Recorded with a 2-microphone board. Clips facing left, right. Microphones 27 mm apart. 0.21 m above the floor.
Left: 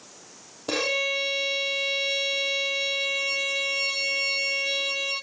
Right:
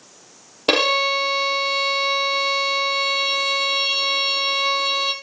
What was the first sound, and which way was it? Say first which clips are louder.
A violin: right 8 dB; 65° right (ahead or behind).